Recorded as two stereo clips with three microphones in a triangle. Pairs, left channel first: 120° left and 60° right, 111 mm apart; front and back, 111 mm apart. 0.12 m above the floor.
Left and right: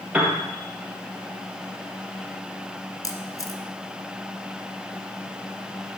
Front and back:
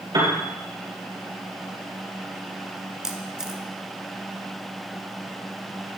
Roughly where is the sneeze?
I don't hear a sneeze.